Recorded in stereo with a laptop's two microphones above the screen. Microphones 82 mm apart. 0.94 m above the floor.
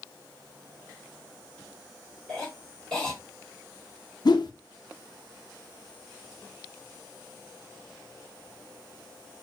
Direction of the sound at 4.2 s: 60° left (ahead or behind).